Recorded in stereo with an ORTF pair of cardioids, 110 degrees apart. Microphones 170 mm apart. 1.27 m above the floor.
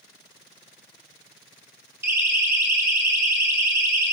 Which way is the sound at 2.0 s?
15° right.